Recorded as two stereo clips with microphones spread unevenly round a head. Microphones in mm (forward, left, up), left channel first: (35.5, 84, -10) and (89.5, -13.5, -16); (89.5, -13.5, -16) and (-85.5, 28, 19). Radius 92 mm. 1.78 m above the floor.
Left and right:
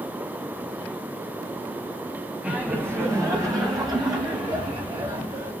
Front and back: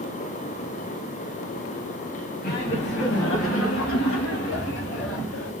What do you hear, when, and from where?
2.4 s laughter: 20° left, 0.9 m; by 5.5 s 10° right, 2.5 m